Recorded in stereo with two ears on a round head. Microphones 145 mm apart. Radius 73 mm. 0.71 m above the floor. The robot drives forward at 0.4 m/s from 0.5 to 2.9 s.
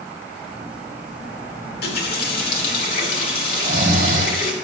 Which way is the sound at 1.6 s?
70° left (ahead or behind).